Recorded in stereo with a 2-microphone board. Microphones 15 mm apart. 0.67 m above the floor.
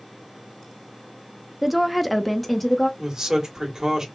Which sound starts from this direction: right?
A man speaking, at 3.0 s.